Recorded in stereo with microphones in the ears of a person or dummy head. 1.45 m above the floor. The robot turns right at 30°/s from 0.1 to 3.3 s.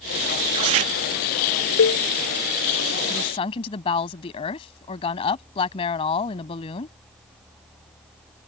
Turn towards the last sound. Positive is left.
turn(degrees=30)  # may be behind; listen again after turning